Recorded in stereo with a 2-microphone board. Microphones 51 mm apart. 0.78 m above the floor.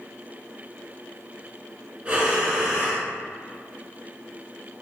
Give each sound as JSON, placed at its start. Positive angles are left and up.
{"t": 2.0, "sound": "breathing", "side_deg": -30, "distance_m": 1.1}